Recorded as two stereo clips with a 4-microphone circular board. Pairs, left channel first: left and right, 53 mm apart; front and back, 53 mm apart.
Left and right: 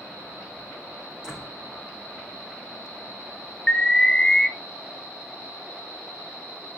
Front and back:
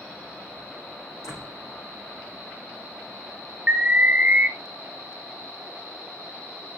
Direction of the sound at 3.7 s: 155° left.